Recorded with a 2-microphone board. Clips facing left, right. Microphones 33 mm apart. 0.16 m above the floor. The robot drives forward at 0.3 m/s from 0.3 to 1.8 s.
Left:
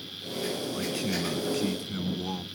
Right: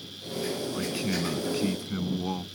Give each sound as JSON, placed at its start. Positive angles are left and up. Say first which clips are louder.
{"t": 0.7, "sound": "a man speaking", "louder": "even", "side_deg": -10}